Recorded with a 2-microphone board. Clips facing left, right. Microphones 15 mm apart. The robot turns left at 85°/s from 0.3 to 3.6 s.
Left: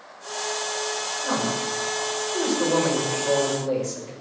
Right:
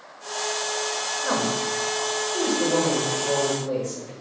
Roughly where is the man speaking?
Right.